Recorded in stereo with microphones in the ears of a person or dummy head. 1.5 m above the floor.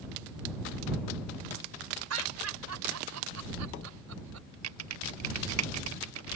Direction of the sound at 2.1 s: 80° right.